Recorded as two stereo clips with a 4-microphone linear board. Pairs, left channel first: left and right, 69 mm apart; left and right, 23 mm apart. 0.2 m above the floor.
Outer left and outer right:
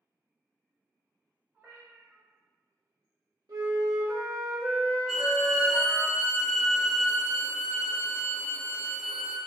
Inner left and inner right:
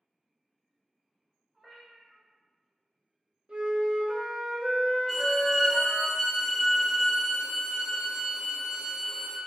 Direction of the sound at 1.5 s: 30° right (ahead or behind).